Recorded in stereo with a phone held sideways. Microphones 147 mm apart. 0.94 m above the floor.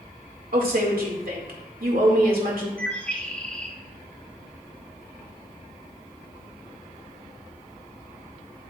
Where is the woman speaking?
80° right, 2.5 m.